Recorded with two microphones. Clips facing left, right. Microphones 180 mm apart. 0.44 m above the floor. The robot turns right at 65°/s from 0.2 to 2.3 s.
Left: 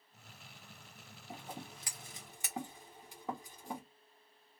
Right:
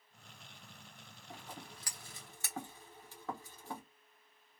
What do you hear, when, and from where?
1.3 s scissors: 20° left (ahead or behind), 1.4 m; by 3.8 s 15° left (ahead or behind), 1.4 m